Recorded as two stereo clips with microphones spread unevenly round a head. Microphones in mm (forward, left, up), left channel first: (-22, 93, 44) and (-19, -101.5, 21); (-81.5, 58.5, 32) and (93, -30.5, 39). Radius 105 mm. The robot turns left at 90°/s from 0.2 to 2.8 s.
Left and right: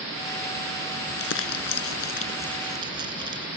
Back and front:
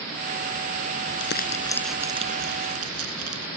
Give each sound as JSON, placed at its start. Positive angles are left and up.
{"t": 1.1, "sound": "crumpling", "azimuth_deg": 135}